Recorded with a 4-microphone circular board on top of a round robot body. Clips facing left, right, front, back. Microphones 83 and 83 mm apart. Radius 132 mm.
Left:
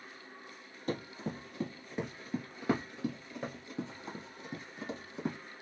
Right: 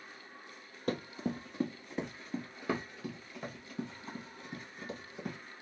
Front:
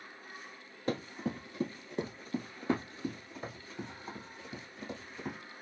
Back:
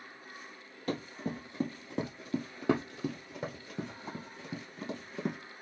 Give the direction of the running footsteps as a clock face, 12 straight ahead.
2 o'clock.